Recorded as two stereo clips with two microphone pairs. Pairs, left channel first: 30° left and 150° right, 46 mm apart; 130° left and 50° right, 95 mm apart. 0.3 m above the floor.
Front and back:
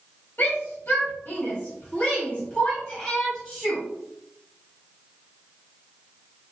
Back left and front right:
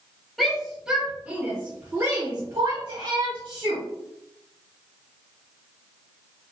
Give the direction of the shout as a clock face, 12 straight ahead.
11 o'clock.